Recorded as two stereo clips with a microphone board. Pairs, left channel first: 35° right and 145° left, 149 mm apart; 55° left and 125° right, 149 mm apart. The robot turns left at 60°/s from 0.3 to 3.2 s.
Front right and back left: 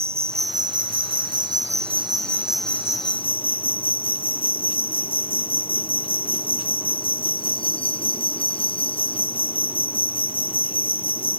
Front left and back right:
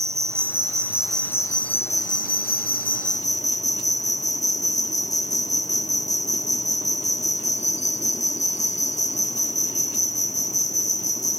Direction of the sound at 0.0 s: 170° right.